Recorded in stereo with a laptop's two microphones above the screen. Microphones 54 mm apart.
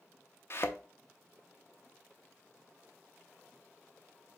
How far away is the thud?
About 0.7 m.